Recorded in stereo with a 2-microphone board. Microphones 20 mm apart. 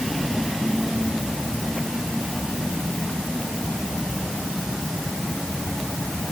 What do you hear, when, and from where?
Only background noise.